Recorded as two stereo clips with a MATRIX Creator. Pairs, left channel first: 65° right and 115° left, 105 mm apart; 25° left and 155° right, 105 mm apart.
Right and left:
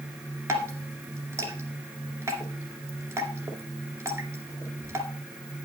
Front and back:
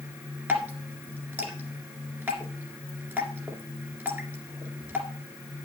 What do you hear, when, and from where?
0.5 s dripping: 150° left, 2 m